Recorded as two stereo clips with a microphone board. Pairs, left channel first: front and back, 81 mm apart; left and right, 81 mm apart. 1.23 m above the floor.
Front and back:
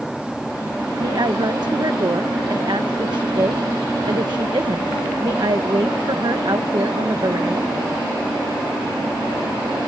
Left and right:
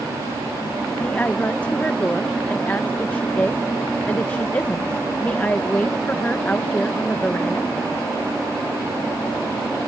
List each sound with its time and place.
1.0 s a woman speaking: 160° left